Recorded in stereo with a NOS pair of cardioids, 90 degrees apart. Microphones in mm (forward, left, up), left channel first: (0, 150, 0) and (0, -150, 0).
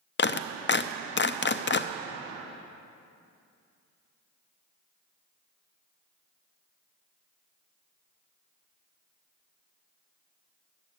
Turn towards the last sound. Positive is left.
turn(degrees=40)